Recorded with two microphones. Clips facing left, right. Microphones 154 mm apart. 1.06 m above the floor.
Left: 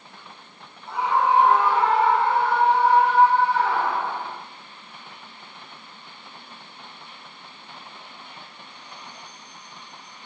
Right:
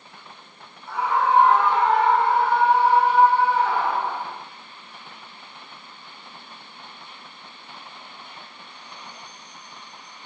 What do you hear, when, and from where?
0.9 s a scream: 20° left (ahead or behind), 4.5 m; by 4.3 s 20° right (ahead or behind), 7 m